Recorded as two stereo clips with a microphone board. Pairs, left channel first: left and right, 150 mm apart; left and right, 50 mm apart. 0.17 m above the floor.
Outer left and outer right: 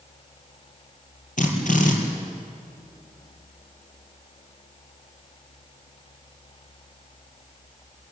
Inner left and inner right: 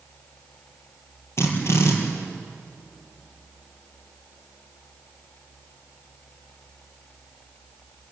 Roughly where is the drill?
Left.